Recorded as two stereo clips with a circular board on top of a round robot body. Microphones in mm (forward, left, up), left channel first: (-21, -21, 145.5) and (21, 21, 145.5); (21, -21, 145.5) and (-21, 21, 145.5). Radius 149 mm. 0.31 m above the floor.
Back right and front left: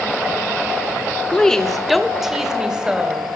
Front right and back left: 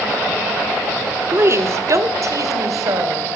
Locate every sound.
1.3 s a woman speaking: 155° left, 1.7 m; by 3.3 s 120° left, 3.5 m